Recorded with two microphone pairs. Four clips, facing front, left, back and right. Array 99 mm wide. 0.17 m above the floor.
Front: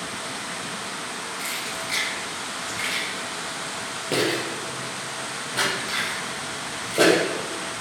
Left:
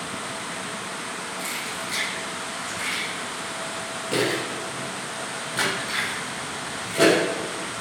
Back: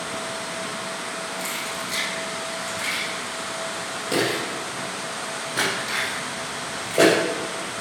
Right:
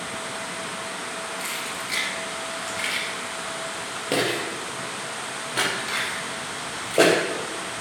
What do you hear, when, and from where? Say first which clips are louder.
1.4 s keys jangling: even, back 2 dB; 50° right, 2.5 m; by 7.2 s 100° right, 4 m